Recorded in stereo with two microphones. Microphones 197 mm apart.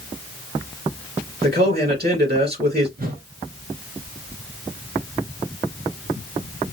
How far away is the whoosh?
About 1.2 m.